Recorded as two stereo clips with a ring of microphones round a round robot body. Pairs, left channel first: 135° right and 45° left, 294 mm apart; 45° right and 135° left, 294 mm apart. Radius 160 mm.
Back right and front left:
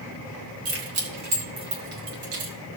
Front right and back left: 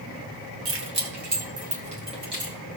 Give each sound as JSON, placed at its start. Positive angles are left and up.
{"t": 0.7, "sound": "keys jangling", "azimuth_deg": 90, "distance_m": 2.0}